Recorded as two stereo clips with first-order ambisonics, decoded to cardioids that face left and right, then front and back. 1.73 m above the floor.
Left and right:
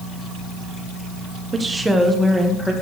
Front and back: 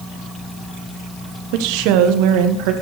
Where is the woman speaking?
165° right, 1.4 m; by 2.7 s 175° left, 2.5 m.